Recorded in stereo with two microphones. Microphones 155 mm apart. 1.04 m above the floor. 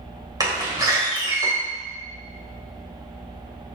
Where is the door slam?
25° right (ahead or behind), 3 m.